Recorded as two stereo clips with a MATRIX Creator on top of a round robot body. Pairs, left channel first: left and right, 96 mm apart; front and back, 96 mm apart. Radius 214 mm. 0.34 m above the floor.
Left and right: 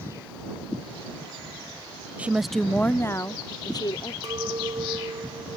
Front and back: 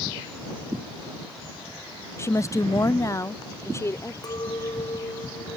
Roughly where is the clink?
Ahead right.